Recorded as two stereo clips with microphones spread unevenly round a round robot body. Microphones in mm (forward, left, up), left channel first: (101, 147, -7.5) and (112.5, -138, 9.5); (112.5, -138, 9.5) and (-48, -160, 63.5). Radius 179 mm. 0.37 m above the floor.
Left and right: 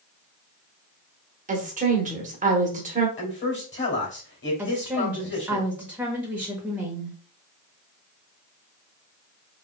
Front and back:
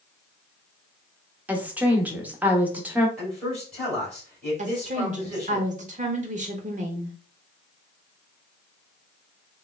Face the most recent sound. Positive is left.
turn(degrees=-175)